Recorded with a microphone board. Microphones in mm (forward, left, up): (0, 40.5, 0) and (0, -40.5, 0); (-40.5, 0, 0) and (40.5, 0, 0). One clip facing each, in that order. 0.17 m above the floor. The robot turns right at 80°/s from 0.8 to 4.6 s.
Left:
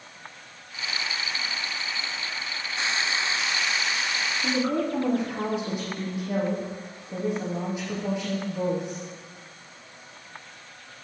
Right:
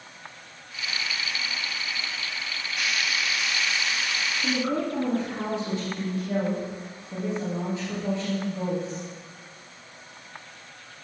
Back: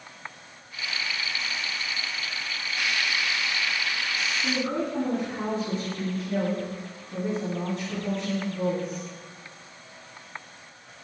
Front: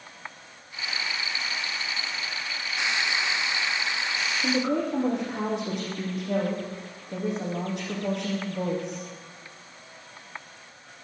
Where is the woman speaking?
Straight ahead, 8.5 m; by 9.0 s 15° left, 8.5 m.